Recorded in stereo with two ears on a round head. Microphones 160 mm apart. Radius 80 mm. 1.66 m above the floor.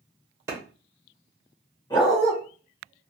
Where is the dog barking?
20° left (ahead or behind), 1.2 m.